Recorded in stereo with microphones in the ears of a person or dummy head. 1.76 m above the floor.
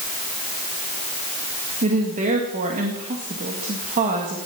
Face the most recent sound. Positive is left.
turn(degrees=-40)  # may be behind; listen again after turning